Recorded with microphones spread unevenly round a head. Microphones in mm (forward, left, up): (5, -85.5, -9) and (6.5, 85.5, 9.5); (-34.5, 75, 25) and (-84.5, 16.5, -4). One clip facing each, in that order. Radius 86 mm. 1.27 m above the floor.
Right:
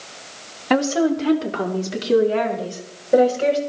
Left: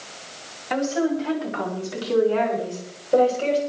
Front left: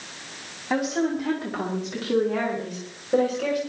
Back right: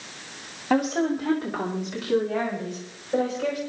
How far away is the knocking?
No knocking in this recording.